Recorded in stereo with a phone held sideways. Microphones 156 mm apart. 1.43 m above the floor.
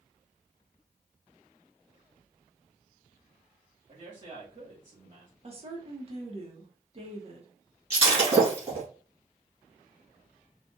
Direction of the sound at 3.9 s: 50° right (ahead or behind).